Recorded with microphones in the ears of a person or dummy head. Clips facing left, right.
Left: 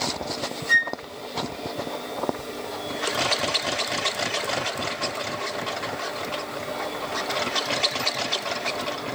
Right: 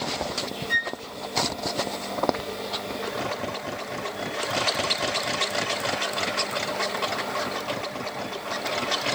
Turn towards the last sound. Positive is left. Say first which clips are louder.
# left 1 dB
turn(degrees=80)